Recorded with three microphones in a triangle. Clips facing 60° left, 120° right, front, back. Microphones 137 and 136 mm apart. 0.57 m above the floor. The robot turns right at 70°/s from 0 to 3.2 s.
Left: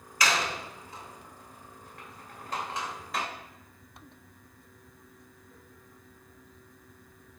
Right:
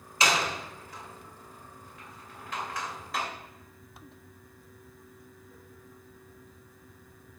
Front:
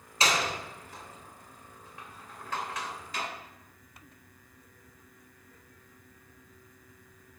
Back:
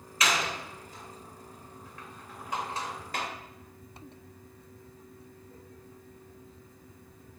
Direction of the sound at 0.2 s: 55° right.